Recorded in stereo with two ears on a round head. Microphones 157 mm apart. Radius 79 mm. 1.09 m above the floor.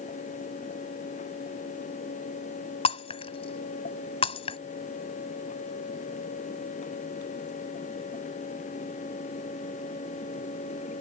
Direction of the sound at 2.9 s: 30° left (ahead or behind).